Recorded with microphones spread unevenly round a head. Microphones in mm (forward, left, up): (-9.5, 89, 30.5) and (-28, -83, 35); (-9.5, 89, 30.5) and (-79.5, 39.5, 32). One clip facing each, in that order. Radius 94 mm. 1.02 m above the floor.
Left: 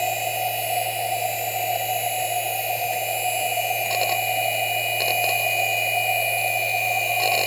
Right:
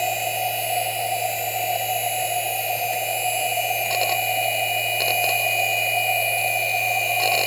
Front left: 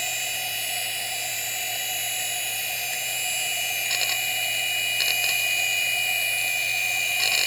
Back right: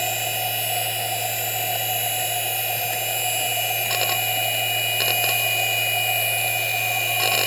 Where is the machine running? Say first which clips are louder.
Even, back right 8 dB; 175° left.